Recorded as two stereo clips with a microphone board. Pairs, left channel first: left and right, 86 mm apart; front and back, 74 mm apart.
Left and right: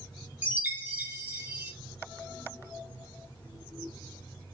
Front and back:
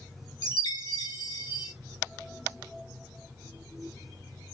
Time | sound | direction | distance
0.4 | a chime | 20° right | 0.7 m